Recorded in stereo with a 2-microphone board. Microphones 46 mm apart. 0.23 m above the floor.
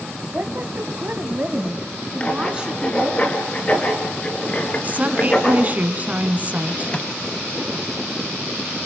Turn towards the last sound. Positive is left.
turn(degrees=25)  # may be behind; listen again after turning